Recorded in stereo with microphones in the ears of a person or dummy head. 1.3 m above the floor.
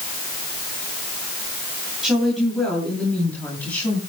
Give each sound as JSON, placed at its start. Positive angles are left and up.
{"t": 2.0, "sound": "a woman speaking", "side_deg": 5, "distance_m": 9.0}